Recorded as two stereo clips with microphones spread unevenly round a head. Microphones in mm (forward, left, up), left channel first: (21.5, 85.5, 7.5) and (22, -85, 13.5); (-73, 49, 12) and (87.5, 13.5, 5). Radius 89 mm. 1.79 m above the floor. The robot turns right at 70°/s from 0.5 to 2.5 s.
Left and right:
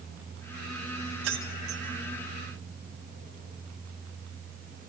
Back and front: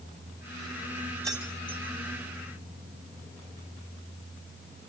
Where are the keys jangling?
90° right, 5 m; by 1.8 s 50° right, 5 m.